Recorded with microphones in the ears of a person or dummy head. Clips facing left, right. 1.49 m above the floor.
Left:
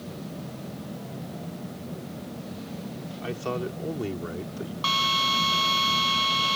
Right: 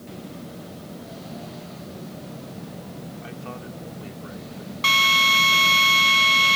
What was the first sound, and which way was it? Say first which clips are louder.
A man speaking: left 6 dB; 60° left (ahead or behind).